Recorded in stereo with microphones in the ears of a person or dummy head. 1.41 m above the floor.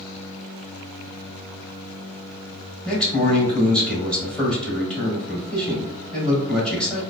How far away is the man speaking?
About 1.8 m.